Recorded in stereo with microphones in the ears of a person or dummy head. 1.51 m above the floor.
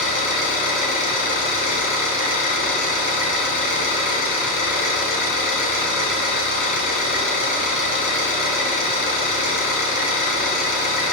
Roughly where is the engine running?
Left.